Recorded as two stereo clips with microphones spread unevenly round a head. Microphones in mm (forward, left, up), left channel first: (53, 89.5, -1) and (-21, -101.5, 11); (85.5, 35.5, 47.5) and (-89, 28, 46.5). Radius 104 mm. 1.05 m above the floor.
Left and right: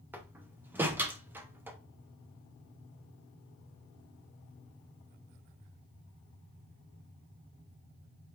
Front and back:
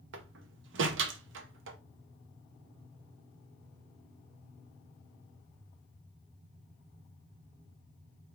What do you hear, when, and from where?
0.1 s a door slam: 170° left, 0.6 m